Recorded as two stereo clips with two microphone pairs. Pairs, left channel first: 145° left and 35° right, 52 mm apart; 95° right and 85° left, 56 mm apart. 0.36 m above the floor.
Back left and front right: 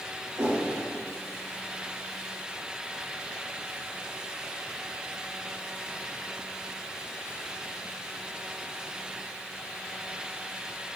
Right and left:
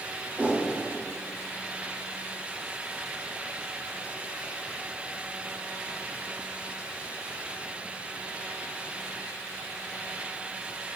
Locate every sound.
0.4 s a whoosh: 35° right, 5.5 m